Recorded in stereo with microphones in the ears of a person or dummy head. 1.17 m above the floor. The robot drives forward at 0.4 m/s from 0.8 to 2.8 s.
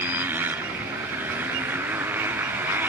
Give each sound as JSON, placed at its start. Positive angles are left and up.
{"t": 0.0, "sound": "a motorcycle", "side_deg": -10}